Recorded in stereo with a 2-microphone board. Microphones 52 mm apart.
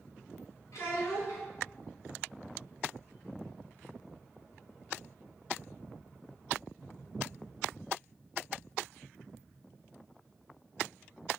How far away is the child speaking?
About 0.8 m.